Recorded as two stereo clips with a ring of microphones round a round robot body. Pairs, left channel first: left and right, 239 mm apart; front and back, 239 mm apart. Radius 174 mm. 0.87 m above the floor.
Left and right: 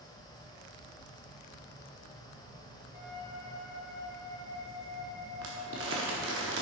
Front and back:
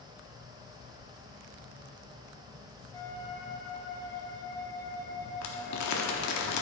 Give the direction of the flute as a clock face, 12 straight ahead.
9 o'clock.